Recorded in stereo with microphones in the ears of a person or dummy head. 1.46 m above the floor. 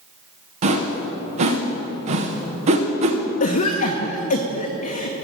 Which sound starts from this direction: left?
A cough, at 3.4 s.